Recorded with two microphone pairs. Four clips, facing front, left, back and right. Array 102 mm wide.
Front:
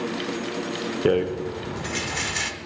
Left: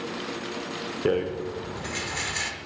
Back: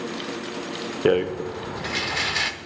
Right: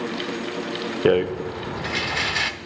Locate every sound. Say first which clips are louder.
1.1 s a rattle: right 6 dB, back 1 dB; 115° right, 0.6 m